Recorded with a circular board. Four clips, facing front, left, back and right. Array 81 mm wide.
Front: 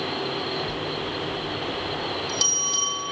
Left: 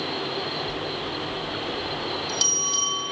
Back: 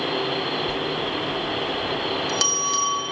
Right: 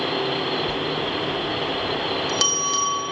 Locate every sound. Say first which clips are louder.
0.7 s a bell: right 5 dB, back 4 dB; 125° right, 0.8 m